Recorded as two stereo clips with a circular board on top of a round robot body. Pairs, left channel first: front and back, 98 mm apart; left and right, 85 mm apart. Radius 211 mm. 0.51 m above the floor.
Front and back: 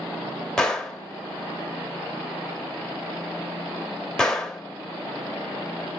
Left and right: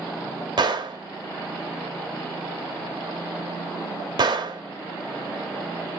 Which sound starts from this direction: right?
A gunshot, at 0.6 s.